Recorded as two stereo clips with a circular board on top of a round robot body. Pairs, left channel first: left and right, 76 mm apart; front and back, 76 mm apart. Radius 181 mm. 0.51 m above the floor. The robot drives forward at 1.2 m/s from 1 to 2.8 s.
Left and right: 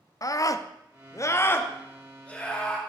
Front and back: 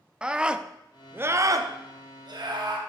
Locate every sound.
0.2 s a scream: 105° left, 0.8 m; by 2.8 s 165° left, 2.5 m